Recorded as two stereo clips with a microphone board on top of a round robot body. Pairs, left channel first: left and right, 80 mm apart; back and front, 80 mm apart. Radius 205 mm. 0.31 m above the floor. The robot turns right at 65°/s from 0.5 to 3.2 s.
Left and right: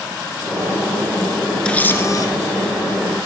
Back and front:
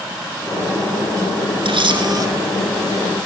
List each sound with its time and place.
1.6 s a camera shutter: 10° left, 3 m; by 2.3 s 50° left, 3 m